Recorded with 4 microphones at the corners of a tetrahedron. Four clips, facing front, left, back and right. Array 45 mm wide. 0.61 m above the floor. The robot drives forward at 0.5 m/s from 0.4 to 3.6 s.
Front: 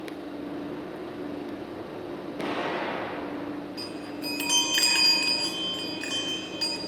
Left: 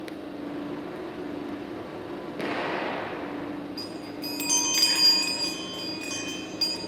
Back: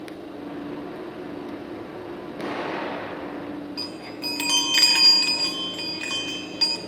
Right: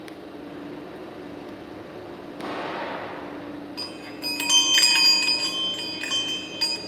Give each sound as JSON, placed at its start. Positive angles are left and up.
{"t": 2.4, "sound": "an explosion", "azimuth_deg": 105, "distance_m": 6.0}
{"t": 3.8, "sound": "a chime", "azimuth_deg": -155, "distance_m": 2.0}